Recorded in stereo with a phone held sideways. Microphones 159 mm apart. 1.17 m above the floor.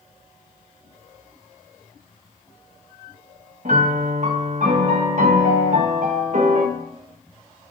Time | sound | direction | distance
3.6 | a piano | 55° right (ahead or behind) | 1.2 m